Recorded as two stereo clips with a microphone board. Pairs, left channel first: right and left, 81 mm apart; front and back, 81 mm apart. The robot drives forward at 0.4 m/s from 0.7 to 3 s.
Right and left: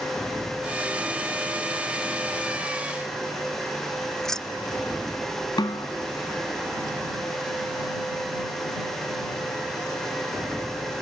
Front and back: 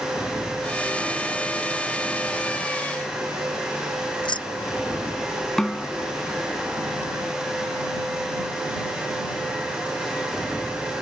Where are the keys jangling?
5° right.